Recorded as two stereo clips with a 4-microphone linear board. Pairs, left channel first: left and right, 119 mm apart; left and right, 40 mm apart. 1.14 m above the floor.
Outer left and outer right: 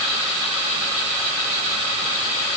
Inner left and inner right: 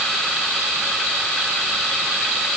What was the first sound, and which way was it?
Only background noise.